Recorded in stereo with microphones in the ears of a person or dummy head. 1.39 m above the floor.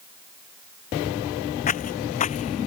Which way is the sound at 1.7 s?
35° left (ahead or behind).